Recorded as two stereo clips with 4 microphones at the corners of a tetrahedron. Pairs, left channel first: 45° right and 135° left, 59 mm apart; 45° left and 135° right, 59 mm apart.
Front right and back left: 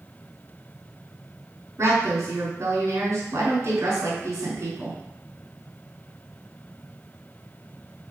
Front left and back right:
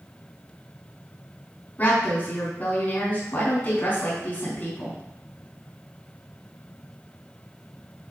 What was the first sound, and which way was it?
A woman speaking, 105° left.